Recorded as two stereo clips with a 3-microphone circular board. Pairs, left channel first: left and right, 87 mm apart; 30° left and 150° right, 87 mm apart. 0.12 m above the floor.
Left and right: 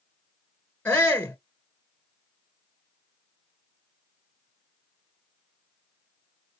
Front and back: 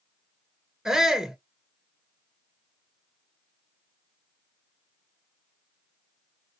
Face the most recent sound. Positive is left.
turn(degrees=135)